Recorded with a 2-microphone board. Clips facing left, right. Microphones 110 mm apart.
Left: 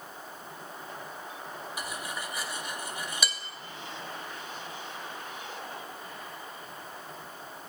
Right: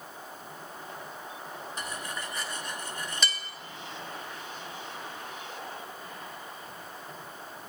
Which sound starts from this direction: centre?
Cutlery clinking, at 1.8 s.